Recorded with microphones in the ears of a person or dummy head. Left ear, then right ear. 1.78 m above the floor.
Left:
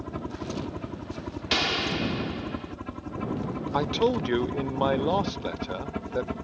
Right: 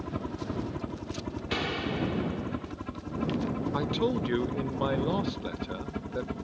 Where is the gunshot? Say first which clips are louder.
Left 7 dB; 45° left (ahead or behind).